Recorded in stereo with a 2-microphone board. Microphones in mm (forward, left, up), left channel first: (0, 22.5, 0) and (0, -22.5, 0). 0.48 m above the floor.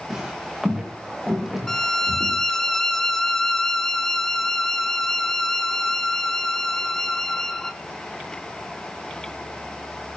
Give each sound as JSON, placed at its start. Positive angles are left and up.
{"t": 0.1, "sound": "footsteps", "side_deg": -15, "distance_m": 5.5}
{"t": 1.7, "sound": "a violin", "side_deg": 10, "distance_m": 0.7}